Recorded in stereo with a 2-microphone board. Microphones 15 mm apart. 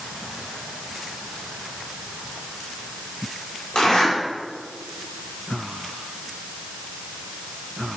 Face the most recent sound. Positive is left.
turn(degrees=75)  # may be behind; listen again after turning